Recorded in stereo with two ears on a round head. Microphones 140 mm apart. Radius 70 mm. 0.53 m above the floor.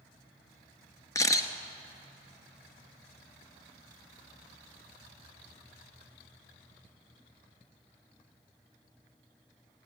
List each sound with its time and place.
1.1 s a camera shutter: 20° left (ahead or behind), 1.2 m